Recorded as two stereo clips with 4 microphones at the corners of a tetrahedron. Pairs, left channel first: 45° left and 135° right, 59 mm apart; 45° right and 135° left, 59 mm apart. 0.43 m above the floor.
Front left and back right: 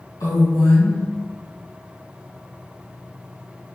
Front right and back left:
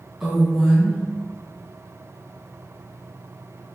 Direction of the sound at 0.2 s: 45° left.